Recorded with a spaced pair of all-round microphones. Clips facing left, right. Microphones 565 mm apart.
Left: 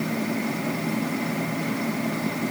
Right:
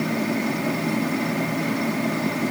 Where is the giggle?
No giggle in this recording.